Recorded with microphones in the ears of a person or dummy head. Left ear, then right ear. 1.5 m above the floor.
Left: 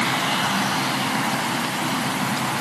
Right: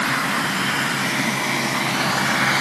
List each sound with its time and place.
Only background noise.